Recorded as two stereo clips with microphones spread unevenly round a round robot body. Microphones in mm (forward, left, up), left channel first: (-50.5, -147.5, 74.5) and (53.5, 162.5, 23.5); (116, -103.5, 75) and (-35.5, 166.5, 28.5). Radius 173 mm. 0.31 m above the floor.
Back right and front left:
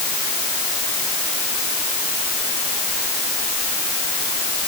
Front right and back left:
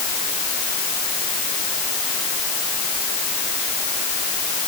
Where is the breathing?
No breathing in this recording.